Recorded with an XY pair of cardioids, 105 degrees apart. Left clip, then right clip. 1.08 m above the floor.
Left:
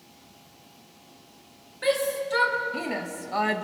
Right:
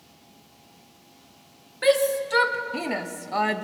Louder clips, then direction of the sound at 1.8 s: Right 4 dB; 40° right.